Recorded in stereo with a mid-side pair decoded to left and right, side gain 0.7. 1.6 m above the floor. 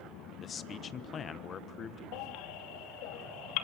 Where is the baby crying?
65° left, 2.5 m.